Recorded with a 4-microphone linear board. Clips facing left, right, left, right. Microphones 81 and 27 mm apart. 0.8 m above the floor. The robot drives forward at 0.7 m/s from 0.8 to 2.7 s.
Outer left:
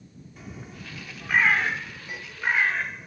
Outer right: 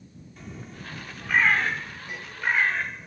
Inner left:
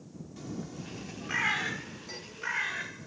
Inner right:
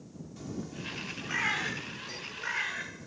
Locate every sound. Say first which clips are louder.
0.4 s a bird: outer right 1 dB, inner right 1 dB; 5° left (ahead or behind)